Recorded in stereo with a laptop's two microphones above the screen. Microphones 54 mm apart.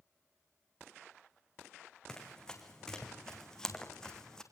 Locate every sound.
2.1 s running footsteps: 15° left (ahead or behind), 4.5 m; by 4.4 s 10° left (ahead or behind), 3.5 m